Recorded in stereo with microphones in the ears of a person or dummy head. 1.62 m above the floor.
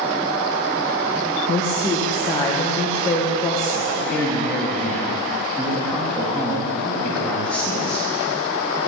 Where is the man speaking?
10° left (ahead or behind), 3.5 m.